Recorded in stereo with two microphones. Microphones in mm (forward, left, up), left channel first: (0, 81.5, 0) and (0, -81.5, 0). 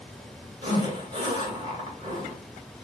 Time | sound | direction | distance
0.6 | a zipper | 30° right (ahead or behind) | 1.7 m